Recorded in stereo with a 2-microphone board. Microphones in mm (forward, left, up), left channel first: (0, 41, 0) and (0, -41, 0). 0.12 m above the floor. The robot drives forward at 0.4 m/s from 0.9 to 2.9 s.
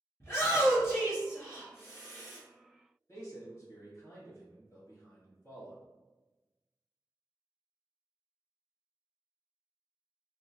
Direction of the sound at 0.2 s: 30° left (ahead or behind).